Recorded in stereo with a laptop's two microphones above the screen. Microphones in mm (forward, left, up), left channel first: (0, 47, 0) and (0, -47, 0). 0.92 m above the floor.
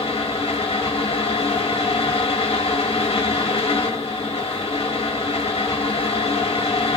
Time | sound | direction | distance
0.0 | a fan | 85° left | 1.0 m